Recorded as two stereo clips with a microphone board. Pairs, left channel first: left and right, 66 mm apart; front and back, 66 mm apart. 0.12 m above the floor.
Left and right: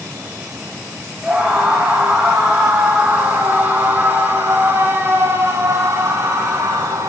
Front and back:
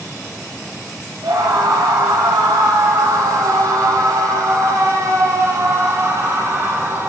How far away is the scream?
About 7.5 m.